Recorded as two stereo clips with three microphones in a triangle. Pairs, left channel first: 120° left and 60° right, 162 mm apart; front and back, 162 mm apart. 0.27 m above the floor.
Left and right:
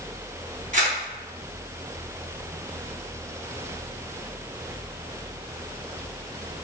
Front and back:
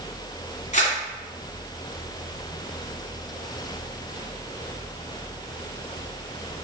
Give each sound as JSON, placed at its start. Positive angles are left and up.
{"t": 0.7, "sound": "a camera shutter", "azimuth_deg": -35, "distance_m": 1.6}